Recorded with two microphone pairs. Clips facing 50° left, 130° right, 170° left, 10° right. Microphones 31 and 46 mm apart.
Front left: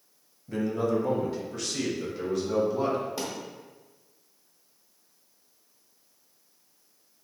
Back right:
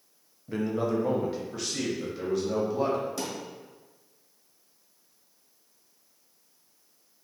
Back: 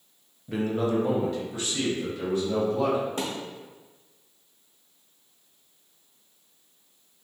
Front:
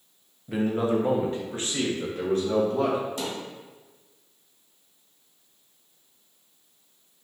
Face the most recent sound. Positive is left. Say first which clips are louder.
# even, back 1 dB
turn(degrees=125)